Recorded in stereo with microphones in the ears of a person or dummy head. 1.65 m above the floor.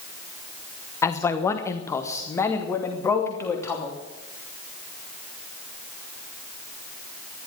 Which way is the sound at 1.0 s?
10° left (ahead or behind).